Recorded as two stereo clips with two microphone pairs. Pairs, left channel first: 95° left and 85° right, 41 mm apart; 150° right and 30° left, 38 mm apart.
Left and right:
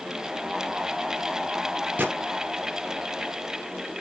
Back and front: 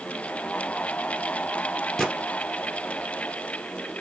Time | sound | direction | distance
2.0 | a gunshot | 75° right | 1.7 m